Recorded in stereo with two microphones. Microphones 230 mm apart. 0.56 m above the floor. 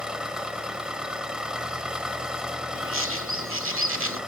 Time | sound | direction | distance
0.0 | an engine running | 5° right (ahead or behind) | 0.8 m
2.8 | a bird | 65° right (ahead or behind) | 1.3 m